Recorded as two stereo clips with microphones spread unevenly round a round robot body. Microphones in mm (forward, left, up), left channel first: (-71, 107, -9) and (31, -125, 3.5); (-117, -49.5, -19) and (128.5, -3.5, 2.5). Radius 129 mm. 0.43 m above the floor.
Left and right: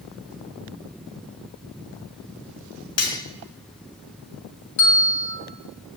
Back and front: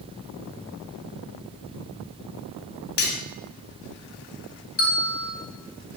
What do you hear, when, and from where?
3.0 s cutlery clinking: 140° left, 1.6 m
4.8 s a bell: 135° left, 5 m